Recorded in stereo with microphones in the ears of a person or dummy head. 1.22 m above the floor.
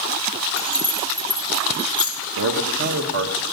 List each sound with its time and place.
0.6 s keys jangling: 5° left (ahead or behind), 4 m; by 2.1 s 25° left (ahead or behind), 1.8 m
2.4 s a man speaking: 65° right (ahead or behind), 1.5 m